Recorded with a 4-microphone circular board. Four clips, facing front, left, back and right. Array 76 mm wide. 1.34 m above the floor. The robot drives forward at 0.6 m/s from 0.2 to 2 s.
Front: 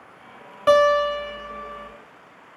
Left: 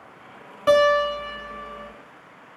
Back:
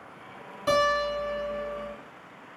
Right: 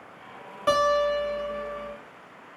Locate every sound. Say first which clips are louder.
0.7 s a guitar: left 4 dB, front 8 dB; 5° left, 1.4 m; by 1.9 s 20° left, 0.9 m